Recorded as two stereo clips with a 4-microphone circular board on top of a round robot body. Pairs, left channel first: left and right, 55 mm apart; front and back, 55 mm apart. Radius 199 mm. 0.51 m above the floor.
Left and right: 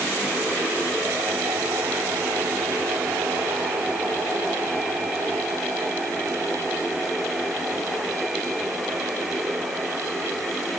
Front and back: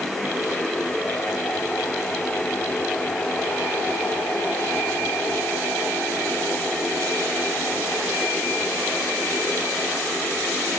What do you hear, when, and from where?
Only background noise.